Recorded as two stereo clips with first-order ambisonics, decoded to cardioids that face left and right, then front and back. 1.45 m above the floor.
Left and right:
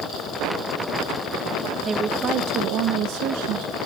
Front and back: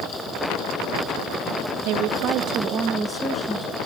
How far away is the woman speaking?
About 1.3 m.